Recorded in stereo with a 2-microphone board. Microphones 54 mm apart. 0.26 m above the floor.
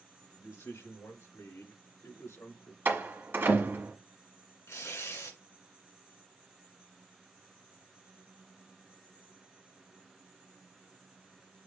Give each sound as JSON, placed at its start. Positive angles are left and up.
{"t": 0.3, "sound": "a man speaking", "side_deg": 60, "distance_m": 1.8}
{"t": 2.9, "sound": "a door slam", "side_deg": -45, "distance_m": 1.3}
{"t": 4.7, "sound": "tearing paper", "side_deg": 65, "distance_m": 2.5}